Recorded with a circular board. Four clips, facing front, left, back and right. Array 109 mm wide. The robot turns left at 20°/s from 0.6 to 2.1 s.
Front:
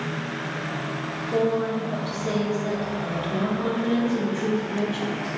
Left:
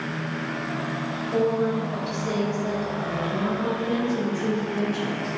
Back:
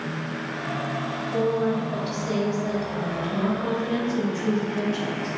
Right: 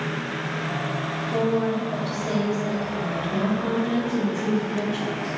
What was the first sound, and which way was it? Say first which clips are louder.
A woman speaking: even, even; 5° left.